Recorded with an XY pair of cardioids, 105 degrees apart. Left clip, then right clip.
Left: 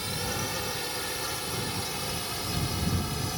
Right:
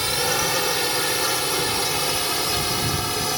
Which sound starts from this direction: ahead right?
A drone, at 0.0 s.